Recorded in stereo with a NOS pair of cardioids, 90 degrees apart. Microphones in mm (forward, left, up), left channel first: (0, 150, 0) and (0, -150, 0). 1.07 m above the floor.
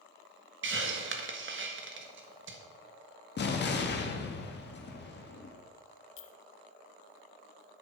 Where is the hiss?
45° right, 1.5 m.